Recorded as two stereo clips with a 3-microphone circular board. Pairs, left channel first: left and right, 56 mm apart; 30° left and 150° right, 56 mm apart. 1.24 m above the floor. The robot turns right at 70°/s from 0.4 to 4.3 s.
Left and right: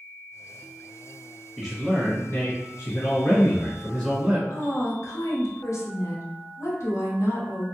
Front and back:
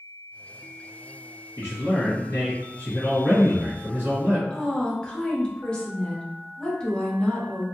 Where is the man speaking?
Straight ahead, 1.7 m; by 4.4 s 170° right, 1.7 m.